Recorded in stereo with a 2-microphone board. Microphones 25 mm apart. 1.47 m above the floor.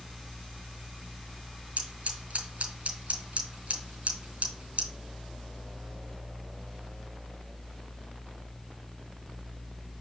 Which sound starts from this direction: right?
Scissors, at 1.8 s.